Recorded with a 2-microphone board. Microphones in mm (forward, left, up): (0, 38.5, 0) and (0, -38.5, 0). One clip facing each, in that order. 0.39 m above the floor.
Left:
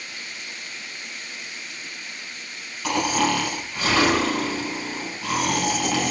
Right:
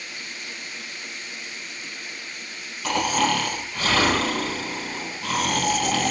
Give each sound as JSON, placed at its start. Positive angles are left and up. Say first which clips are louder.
{"t": 2.8, "sound": "snoring", "louder": "even", "side_deg": 0, "distance_m": 5.0}